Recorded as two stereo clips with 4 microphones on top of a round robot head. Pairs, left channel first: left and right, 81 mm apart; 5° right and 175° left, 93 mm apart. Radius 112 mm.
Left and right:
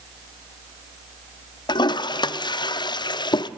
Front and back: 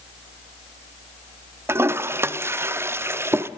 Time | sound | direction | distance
1.7 | a toilet flushing | 110° left | 0.6 m